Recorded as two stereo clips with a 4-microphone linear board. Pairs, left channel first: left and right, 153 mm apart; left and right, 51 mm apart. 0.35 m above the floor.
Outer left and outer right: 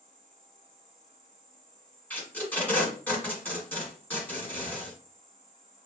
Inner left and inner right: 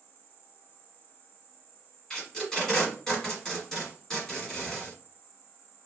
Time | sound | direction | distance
0.0 | an insect | 45° left (ahead or behind) | 1.3 m
2.1 | tape being pulled | 10° left (ahead or behind) | 1.5 m